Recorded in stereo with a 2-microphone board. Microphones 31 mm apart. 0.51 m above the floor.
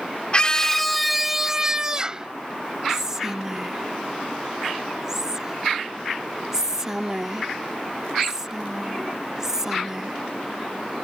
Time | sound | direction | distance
0.3 | a scream | 30° left (ahead or behind) | ?
2.9 | whispering | 20° right (ahead or behind) | ?